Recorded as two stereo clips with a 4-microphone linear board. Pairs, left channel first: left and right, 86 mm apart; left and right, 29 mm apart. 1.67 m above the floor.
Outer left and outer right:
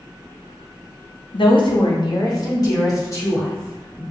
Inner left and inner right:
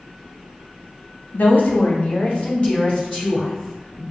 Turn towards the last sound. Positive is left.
turn(degrees=30)  # may be behind; listen again after turning